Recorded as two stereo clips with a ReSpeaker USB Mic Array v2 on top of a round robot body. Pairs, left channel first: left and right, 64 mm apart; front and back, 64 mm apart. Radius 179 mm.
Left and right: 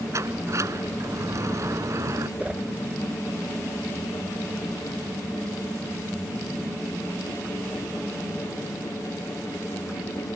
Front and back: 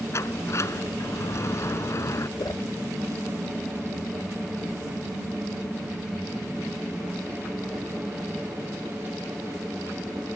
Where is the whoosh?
20° right.